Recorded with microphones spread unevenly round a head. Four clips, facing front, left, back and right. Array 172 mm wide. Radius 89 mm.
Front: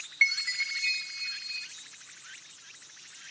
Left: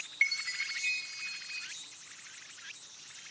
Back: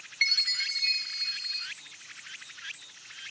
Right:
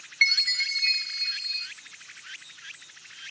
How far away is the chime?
About 0.8 m.